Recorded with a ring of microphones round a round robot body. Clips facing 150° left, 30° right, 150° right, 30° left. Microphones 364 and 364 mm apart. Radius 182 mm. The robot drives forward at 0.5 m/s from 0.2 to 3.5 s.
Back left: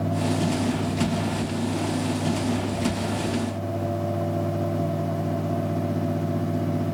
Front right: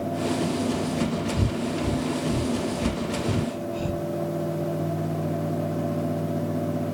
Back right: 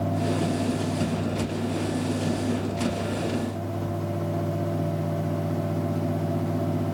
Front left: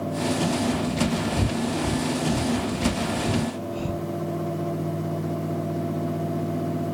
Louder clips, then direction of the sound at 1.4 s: Even, front left 2 dB; 5° right.